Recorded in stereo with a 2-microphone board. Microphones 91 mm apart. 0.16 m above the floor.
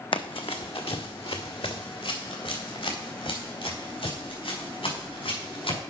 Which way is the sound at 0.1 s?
70° left (ahead or behind).